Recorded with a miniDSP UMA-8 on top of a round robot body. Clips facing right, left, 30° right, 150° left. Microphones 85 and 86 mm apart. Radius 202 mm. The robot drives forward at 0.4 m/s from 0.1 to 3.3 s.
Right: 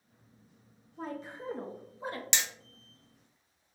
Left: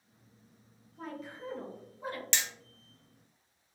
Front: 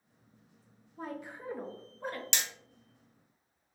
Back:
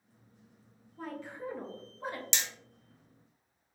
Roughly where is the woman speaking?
Right.